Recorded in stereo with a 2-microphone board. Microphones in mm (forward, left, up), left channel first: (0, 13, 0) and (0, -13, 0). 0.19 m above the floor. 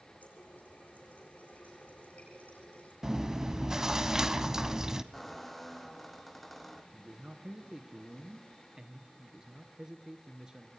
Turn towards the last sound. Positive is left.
turn(degrees=-30)  # may be behind; listen again after turning